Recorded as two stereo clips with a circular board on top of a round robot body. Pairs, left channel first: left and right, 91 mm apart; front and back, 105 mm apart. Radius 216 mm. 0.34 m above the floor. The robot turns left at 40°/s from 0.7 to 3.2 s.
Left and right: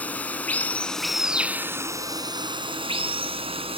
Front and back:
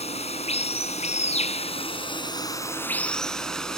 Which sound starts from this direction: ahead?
Running water, at 0.0 s.